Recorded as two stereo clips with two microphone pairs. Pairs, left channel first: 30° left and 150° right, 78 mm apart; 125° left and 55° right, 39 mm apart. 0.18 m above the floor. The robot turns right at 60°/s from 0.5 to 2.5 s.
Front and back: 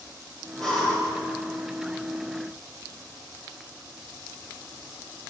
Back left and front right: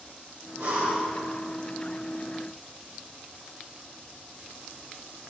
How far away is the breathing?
About 6 m.